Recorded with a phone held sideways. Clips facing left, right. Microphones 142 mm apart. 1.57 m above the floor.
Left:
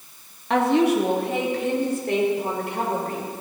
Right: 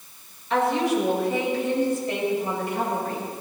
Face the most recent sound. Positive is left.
turn(degrees=65)  # may be behind; listen again after turning